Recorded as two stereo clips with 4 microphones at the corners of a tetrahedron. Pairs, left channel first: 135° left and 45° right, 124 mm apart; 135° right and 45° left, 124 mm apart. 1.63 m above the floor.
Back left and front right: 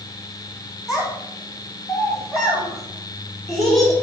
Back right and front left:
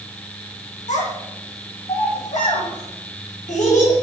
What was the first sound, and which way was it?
A child speaking, 140° right.